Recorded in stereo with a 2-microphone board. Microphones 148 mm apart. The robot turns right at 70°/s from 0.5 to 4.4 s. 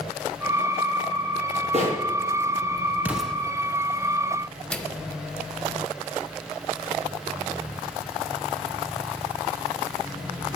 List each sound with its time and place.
1.7 s a bird: 50° right (ahead or behind), 4 m; by 1.8 s 55° right (ahead or behind), 4 m
3.0 s an explosion: 10° right (ahead or behind), 1.0 m; by 3.4 s 10° left (ahead or behind), 1.0 m
4.7 s a microwave: 10° left (ahead or behind), 0.7 m